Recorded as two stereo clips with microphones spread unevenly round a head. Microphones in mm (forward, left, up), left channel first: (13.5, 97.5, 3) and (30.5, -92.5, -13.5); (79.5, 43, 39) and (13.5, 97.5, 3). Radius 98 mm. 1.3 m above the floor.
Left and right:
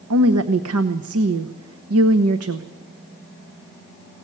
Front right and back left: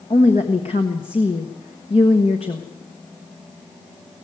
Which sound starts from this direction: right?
A woman speaking, at 0.1 s.